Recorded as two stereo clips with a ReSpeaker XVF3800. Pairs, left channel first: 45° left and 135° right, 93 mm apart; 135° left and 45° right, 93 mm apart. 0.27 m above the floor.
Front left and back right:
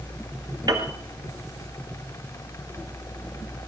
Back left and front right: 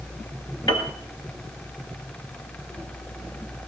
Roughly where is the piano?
Behind.